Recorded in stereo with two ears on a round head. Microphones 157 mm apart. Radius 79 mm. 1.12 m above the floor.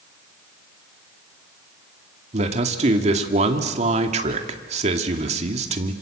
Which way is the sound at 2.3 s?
40° right (ahead or behind).